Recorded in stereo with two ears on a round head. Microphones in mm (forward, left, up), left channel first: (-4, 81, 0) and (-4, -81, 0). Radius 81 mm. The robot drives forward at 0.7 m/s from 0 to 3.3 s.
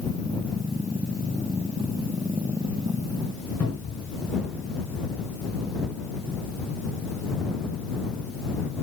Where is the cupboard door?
10° left (ahead or behind), 3.5 m.